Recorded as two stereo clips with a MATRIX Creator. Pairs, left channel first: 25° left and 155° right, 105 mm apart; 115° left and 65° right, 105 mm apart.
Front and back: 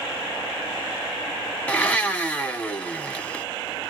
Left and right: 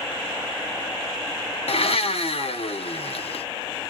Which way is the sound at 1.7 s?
95° left.